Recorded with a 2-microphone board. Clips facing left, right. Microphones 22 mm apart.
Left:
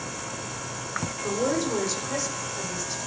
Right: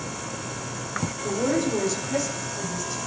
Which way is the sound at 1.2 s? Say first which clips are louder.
Right 2 dB; 20° left (ahead or behind).